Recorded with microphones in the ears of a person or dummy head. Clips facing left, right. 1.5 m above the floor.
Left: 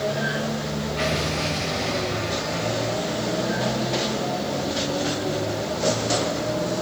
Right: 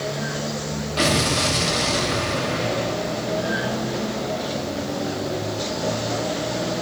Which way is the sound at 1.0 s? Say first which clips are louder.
Right 6 dB; 60° right (ahead or behind).